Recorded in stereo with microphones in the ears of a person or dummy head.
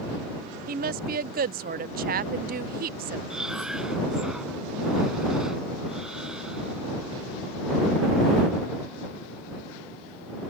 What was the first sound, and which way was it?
A woman speaking, 45° right (ahead or behind).